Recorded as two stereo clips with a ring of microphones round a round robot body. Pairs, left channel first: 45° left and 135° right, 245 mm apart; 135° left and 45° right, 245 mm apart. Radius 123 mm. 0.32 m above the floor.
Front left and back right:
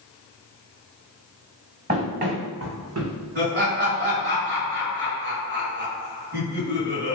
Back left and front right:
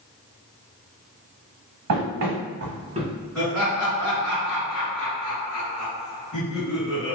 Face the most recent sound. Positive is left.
turn(degrees=-135)